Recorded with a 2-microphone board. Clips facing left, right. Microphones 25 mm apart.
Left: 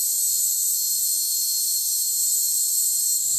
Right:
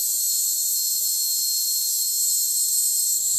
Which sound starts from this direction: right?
An insect, at 0.0 s.